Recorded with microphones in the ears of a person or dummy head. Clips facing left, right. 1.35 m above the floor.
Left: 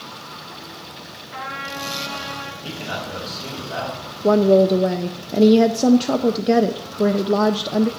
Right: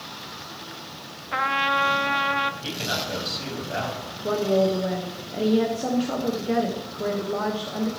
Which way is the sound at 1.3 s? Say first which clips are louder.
Right 6 dB; 70° right (ahead or behind).